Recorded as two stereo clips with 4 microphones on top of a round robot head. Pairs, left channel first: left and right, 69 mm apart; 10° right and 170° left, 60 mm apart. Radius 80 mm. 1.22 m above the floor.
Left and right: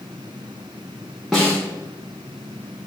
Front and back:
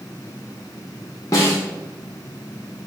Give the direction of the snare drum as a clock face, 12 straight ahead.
12 o'clock.